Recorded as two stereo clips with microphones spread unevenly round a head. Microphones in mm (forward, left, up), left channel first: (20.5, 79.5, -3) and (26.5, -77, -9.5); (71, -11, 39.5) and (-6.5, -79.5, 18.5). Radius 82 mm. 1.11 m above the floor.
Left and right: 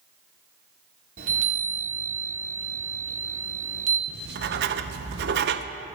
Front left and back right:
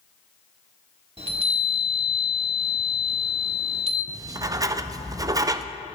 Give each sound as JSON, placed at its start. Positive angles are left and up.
{"t": 1.2, "sound": "a chime", "azimuth_deg": -125, "distance_m": 1.5}
{"t": 4.1, "sound": "writing", "azimuth_deg": -90, "distance_m": 0.5}